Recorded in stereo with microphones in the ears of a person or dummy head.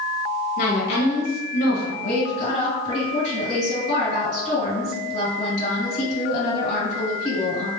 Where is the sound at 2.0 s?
50° left (ahead or behind), 1.9 m.